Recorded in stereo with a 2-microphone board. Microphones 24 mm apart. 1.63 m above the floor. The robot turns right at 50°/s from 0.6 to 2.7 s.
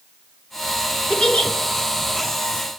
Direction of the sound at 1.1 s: 45° left (ahead or behind).